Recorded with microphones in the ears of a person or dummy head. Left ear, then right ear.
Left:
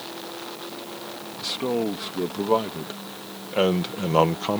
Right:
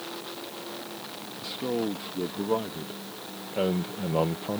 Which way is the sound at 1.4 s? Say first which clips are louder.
Left 5 dB; 30° left (ahead or behind).